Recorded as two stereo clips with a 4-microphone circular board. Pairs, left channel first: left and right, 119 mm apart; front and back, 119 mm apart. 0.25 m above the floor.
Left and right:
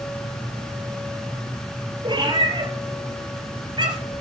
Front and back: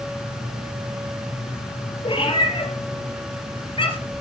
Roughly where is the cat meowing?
Ahead right.